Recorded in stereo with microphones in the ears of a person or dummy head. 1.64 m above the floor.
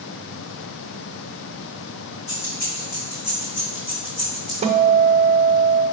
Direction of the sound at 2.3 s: 50° left (ahead or behind).